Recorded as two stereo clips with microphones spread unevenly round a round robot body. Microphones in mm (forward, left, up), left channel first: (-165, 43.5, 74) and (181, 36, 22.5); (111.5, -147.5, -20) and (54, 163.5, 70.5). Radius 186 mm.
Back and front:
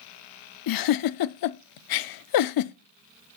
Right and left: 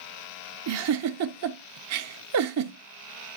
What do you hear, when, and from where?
0.7 s a giggle: 155° left, 0.5 m